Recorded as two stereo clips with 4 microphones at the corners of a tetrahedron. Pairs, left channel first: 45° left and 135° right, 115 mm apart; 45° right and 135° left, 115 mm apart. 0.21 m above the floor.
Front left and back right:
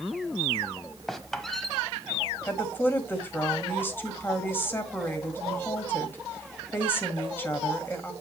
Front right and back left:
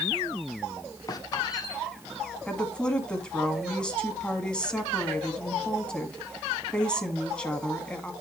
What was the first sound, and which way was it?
A squeak, 40° right.